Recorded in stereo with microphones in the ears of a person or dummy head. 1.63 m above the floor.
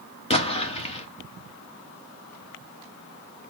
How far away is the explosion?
About 1.1 m.